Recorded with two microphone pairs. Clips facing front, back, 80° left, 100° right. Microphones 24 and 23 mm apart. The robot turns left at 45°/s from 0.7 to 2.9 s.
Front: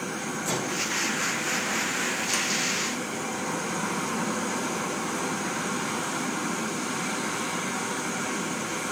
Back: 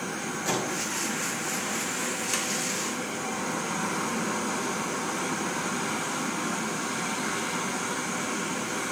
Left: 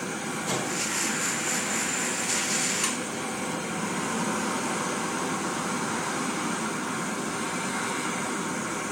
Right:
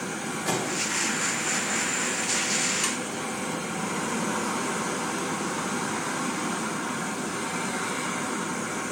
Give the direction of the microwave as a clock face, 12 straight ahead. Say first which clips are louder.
Even, right 2 dB; 4 o'clock.